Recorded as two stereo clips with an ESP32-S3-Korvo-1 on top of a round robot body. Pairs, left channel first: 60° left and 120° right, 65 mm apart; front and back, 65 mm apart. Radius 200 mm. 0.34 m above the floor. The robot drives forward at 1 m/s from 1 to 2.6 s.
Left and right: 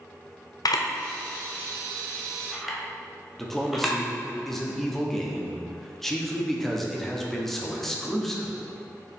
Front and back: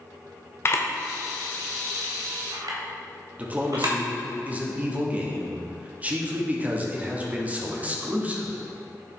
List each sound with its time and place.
0.7 s a camera shutter: 50° left, 0.8 m; by 4.0 s 155° left, 1.3 m
3.4 s a man speaking: 145° left, 1.3 m